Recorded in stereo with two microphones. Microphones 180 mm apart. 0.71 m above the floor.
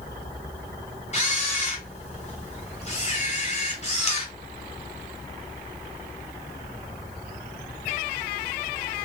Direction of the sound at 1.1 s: 35° left (ahead or behind).